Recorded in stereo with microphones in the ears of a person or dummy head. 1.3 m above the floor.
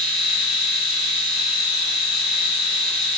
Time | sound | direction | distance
0.0 | a machine running | 45° right (ahead or behind) | 1.1 m